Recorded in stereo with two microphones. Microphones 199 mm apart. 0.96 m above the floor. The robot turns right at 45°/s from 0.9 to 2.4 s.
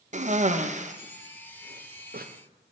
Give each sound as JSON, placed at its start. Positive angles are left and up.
{"t": 0.1, "sound": "a cough", "side_deg": -35, "distance_m": 0.6}